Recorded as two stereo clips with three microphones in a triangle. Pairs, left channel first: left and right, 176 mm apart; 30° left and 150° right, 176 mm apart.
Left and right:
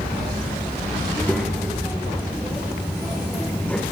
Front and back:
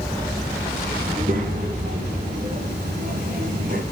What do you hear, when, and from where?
1.1 s a child speaking: 175° left, 7 m; by 3.8 s 170° left, 8.5 m